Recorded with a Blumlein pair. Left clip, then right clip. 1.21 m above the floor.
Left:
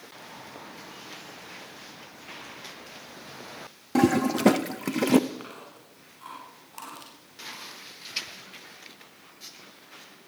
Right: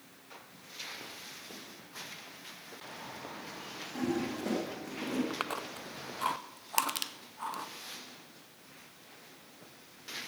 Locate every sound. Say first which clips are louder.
4.0 s a toilet flushing: left 12 dB; 50° left, 0.6 m
5.3 s chewing: right 5 dB; 35° right, 1.6 m
6.8 s crushing: right 9 dB; 35° right, 1.0 m